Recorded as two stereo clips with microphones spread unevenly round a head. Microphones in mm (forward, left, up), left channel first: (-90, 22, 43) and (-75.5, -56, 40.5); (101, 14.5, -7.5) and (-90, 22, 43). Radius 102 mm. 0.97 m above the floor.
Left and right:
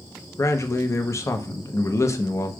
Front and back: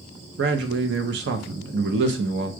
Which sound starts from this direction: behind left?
A man speaking, at 0.4 s.